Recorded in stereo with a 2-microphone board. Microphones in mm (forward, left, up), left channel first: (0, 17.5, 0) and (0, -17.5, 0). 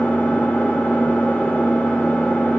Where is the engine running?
65° left (ahead or behind), 1.5 m.